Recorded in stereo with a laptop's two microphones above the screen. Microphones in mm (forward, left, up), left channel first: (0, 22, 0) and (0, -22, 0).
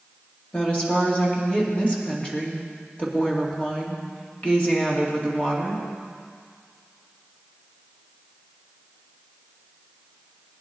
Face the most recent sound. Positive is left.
turn(degrees=25)  # may be behind; listen again after turning